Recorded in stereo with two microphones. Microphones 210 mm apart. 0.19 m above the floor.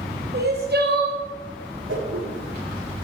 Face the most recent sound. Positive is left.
turn(degrees=-65)  # may be behind; listen again after turning